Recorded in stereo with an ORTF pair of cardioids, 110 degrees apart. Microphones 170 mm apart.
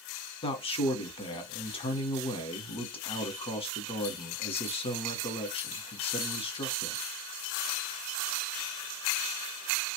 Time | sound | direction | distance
0.4 | a man speaking | 35° left | 1.1 m